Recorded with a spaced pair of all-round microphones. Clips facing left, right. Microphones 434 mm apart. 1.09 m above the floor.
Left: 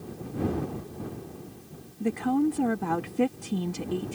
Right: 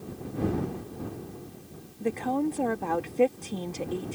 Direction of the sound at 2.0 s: 25° left (ahead or behind).